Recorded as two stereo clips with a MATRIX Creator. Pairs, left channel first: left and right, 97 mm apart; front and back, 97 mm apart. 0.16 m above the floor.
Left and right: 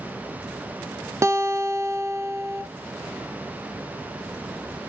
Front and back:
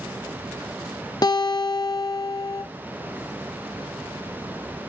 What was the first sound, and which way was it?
A guitar, 35° right.